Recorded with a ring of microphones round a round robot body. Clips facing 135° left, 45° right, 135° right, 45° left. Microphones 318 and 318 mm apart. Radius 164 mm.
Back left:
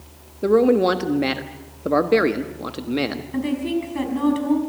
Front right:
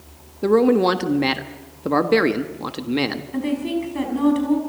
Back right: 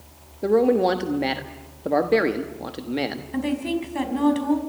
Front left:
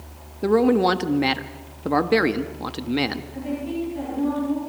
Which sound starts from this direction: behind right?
A woman speaking, at 3.3 s.